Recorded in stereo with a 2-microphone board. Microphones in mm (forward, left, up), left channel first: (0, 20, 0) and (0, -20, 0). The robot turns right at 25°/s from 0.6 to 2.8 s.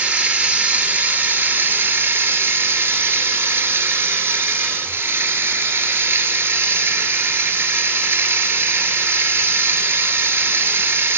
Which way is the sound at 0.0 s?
135° right.